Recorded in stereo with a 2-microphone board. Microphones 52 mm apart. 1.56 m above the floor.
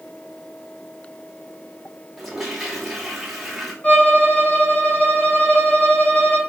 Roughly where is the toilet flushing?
Centre.